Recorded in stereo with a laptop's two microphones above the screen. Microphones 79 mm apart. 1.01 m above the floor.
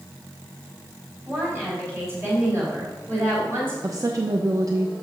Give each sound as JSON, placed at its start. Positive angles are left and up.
{"t": 1.2, "sound": "a woman speaking", "side_deg": -30, "distance_m": 4.5}
{"t": 3.8, "sound": "a woman speaking", "side_deg": -45, "distance_m": 0.7}